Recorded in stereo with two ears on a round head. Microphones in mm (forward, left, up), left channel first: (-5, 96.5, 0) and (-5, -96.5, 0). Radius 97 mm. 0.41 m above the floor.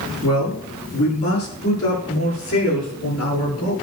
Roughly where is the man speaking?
Left.